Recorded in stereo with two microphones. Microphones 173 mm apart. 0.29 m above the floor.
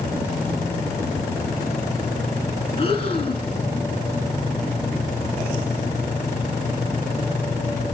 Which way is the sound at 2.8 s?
35° left (ahead or behind).